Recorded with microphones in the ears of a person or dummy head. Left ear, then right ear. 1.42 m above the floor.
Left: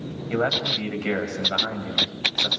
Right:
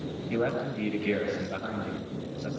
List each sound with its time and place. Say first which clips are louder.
0.3 s a man speaking: left 7 dB; 55° left (ahead or behind), 7 m